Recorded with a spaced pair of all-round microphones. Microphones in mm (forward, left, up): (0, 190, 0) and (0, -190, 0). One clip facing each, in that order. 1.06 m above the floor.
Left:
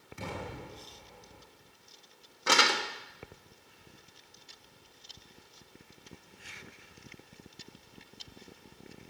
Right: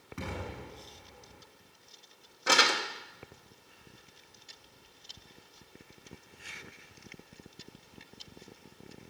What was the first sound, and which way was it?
An explosion, 80° right.